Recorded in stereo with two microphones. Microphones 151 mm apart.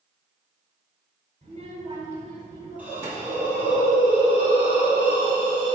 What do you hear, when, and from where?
1.4 s a child speaking: 40° right (ahead or behind), 3 m; by 3.8 s 30° right (ahead or behind), 2 m
2.8 s a hiss: 10° right (ahead or behind), 3 m